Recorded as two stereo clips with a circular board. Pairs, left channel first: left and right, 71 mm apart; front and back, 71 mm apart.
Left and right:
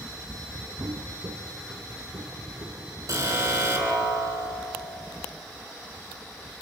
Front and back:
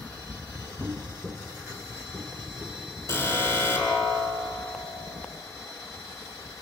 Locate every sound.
0.8 s footsteps: 130° right, 0.8 m; by 4.1 s 110° right, 5 m
3.1 s an alarm: 50° right, 6 m